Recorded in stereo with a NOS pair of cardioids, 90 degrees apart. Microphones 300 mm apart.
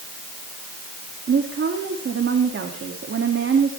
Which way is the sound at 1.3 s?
40° right.